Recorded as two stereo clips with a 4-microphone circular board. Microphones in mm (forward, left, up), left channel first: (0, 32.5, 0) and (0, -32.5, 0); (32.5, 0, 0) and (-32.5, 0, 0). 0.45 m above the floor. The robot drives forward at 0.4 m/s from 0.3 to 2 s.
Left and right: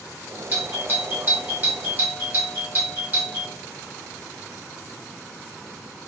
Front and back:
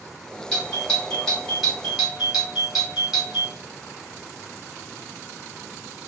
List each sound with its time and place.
0.5 s a doorbell: 65° right, 1.9 m; by 3.5 s 100° right, 1.9 m